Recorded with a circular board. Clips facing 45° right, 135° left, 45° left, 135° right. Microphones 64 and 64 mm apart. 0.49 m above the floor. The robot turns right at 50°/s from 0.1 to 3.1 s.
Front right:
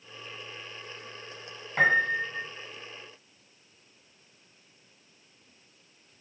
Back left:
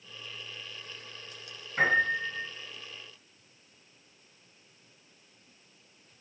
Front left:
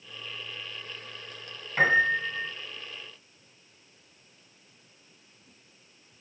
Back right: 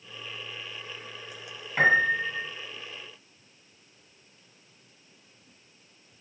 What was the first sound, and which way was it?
A piano, 50° right.